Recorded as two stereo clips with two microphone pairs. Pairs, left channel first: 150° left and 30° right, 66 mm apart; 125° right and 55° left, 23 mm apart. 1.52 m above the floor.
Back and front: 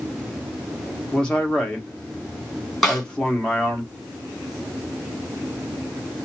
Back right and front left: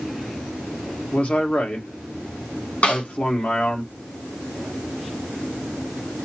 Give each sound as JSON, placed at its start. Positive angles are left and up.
{"t": 1.1, "sound": "a man speaking", "azimuth_deg": -135, "distance_m": 1.6}
{"t": 2.8, "sound": "a snare drum", "azimuth_deg": -125, "distance_m": 3.0}